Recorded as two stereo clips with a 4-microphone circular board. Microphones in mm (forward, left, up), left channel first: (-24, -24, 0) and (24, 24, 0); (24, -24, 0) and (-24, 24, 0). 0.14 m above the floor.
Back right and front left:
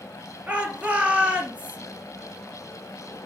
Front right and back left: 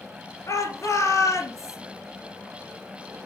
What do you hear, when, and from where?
0.5 s a shout: 20° right, 3 m